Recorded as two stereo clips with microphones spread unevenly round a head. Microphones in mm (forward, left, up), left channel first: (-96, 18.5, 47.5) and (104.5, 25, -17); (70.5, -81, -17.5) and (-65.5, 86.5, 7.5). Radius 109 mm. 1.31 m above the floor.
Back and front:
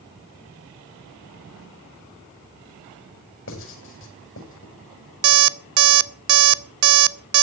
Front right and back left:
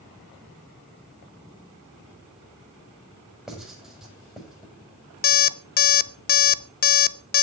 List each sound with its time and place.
3.5 s writing: 145° right, 7 m
5.2 s an alarm clock: 10° right, 0.7 m